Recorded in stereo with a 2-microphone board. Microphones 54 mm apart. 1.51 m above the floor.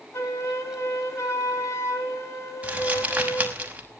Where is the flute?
60° left (ahead or behind), 5 m.